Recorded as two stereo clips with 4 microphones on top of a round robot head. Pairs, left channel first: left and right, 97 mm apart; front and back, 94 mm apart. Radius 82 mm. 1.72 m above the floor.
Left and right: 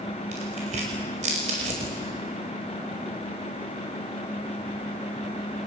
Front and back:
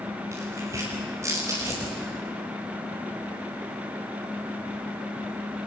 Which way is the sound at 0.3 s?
110° right.